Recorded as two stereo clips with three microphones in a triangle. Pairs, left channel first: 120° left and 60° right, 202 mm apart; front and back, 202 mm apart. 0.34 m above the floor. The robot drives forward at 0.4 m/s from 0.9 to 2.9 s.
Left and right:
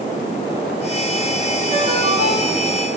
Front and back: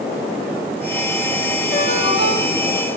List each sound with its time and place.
1.7 s a ringtone: 20° right, 6.5 m; by 2.8 s 25° right, 6.5 m